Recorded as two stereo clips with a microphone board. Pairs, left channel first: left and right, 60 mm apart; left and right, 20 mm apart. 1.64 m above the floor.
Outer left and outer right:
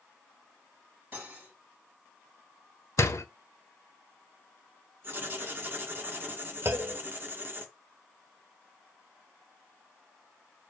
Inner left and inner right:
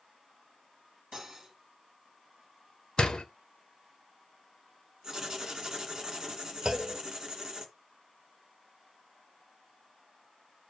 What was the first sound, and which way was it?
Cutlery clinking, 30° right (ahead or behind).